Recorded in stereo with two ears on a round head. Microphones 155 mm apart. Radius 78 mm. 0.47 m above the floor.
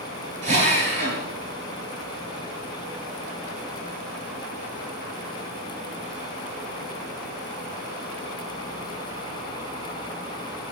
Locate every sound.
0.4 s a drill: 45° right (ahead or behind), 9 m